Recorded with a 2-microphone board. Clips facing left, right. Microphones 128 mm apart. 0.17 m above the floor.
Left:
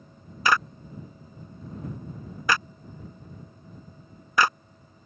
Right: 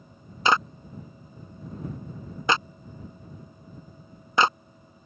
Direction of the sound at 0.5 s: 25° right (ahead or behind).